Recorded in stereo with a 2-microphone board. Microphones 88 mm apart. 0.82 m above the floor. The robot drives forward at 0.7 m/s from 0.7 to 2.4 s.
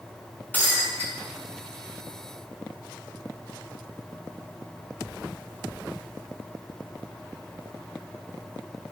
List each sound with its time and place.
0.5 s breaking glass: 20° left (ahead or behind), 6 m